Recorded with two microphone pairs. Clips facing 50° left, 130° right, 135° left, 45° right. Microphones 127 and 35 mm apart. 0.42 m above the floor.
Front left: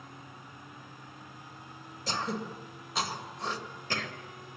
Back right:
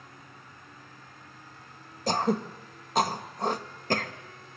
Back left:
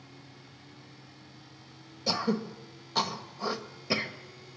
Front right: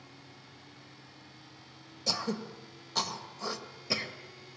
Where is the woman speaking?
No woman speaking in this recording.